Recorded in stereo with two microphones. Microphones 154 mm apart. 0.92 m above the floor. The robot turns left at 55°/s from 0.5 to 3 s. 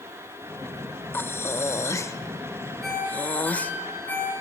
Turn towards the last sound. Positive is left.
turn(degrees=10)  # may be behind; listen again after turning